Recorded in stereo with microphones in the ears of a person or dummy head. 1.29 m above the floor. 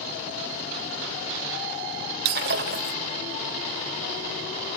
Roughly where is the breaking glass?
Right.